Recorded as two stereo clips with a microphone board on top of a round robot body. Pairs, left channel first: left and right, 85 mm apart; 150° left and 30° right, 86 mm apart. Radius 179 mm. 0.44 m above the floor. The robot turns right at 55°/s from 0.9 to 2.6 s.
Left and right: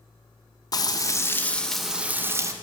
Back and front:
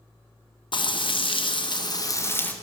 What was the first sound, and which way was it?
Frying, 130° left.